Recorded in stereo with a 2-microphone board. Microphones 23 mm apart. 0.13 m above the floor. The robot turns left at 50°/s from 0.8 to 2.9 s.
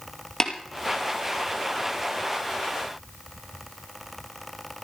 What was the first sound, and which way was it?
Tapping, 25° left (ahead or behind).